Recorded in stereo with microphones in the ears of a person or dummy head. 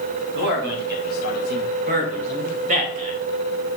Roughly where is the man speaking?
Right.